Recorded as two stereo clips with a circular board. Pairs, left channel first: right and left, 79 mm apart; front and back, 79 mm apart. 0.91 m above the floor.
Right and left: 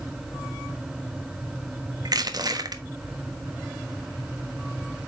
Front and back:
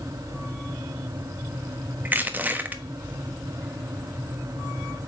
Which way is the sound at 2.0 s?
115° left.